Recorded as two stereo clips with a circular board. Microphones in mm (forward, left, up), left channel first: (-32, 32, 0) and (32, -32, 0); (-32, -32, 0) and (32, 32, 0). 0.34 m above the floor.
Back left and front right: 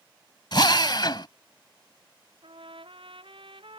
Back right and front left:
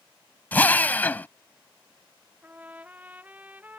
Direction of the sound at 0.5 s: 160° left.